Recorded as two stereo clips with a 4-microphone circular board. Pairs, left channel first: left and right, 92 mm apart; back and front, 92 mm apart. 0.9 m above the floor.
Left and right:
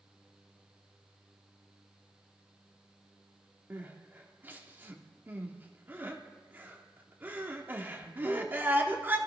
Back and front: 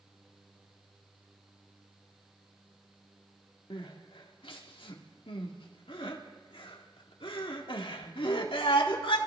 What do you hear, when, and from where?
3.7 s crying: 160° right, 1.7 m